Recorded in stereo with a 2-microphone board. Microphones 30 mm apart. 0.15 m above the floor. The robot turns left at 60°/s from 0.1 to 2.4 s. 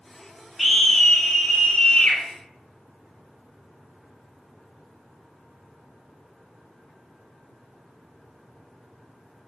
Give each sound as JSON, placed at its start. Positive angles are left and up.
{"t": 0.6, "sound": "a scream", "side_deg": -5, "distance_m": 1.7}